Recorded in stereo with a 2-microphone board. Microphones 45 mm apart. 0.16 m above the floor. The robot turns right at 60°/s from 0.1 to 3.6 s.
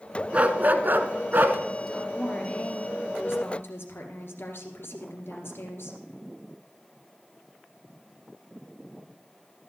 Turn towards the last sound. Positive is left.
turn(degrees=100)